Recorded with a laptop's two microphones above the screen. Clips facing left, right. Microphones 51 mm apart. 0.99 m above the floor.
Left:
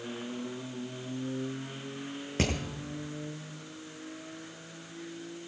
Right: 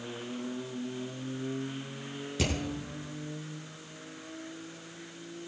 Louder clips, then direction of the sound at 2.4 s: Left 2 dB; 45° left (ahead or behind).